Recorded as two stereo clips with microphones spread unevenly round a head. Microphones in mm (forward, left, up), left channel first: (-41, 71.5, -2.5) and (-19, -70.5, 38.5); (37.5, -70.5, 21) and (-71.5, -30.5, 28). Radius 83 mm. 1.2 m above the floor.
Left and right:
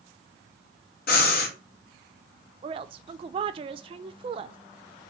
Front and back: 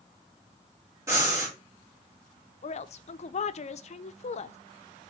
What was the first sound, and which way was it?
Breathing, 85° left.